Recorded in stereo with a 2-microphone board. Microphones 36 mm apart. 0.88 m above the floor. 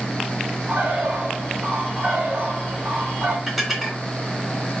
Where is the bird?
55° right (ahead or behind), 2 m.